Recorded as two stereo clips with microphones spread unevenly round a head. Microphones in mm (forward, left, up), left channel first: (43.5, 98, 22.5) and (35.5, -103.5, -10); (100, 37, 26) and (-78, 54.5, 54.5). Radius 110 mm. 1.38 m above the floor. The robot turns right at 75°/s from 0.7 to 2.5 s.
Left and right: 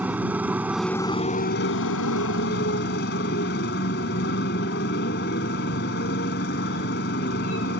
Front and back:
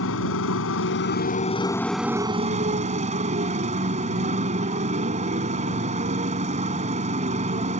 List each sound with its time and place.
0.0 s a motorcycle: 5° right; by 7.8 s 130° left